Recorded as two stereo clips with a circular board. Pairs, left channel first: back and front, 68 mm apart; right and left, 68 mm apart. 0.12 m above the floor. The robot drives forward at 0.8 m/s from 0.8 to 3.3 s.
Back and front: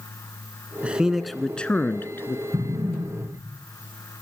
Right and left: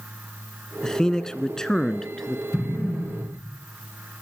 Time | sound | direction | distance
0.8 | a man speaking | 25° right | 1.1 m
2.5 | an explosion | straight ahead | 8 m